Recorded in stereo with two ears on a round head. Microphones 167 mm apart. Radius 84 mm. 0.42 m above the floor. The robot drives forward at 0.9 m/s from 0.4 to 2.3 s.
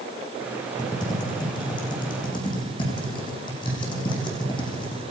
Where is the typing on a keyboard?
20° left (ahead or behind), 9 m; by 5.0 s 25° left (ahead or behind), 8 m.